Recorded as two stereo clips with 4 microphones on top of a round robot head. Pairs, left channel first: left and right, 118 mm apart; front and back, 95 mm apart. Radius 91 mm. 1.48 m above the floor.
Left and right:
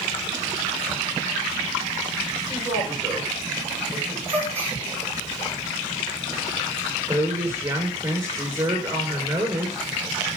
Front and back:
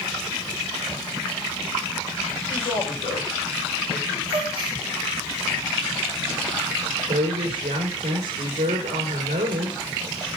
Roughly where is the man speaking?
Ahead.